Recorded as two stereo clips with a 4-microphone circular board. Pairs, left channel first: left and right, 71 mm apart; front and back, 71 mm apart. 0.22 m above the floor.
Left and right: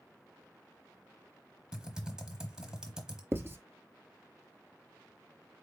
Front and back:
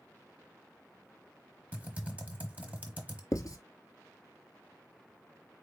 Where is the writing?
35° right, 0.7 m.